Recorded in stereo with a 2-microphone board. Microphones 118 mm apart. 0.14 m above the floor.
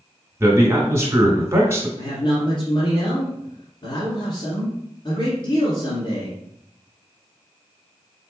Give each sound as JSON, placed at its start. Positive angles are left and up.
{"t": 0.4, "sound": "a man speaking", "side_deg": -20, "distance_m": 1.2}
{"t": 2.0, "sound": "a man speaking", "side_deg": 45, "distance_m": 1.5}